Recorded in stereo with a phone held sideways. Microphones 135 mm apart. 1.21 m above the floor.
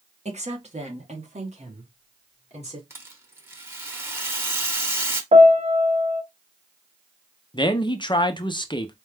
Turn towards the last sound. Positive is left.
turn(degrees=35)  # may be behind; listen again after turning